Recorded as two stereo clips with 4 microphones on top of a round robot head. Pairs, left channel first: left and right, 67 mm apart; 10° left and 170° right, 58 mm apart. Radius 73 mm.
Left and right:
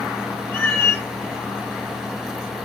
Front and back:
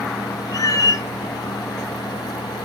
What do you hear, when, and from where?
0.5 s a cat meowing: 30° left, 1.4 m